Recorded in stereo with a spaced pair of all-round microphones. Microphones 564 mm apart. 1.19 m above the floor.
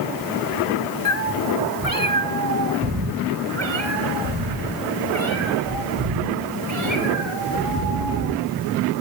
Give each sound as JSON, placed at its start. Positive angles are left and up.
{"t": 1.1, "sound": "a cat meowing", "side_deg": -15, "distance_m": 1.5}